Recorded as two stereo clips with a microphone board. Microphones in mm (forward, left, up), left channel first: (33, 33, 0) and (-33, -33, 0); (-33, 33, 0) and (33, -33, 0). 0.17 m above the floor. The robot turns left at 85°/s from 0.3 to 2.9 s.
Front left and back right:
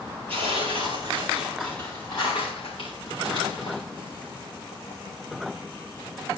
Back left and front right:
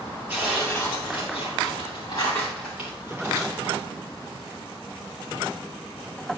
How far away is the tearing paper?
About 5.5 m.